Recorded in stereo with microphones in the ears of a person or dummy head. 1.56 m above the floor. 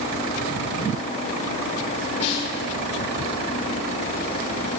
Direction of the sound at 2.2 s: 40° left (ahead or behind).